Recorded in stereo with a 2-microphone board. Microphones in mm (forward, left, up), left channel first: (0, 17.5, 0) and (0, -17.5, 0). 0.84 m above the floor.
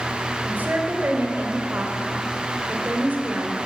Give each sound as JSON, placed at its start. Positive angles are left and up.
{"t": 0.4, "sound": "a woman speaking", "side_deg": -60, "distance_m": 2.5}